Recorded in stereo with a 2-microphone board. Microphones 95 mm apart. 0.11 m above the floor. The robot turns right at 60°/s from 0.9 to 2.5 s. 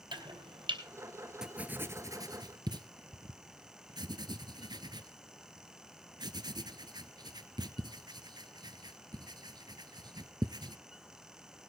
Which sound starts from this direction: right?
Chopping, at 0.1 s.